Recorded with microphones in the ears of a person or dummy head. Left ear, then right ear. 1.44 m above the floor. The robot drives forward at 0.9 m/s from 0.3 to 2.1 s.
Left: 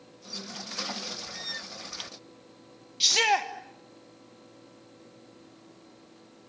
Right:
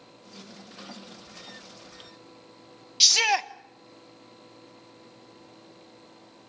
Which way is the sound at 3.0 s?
30° right (ahead or behind).